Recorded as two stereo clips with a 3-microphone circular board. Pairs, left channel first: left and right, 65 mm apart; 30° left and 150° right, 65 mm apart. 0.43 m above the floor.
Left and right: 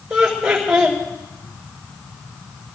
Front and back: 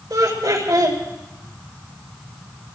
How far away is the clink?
No clink in this recording.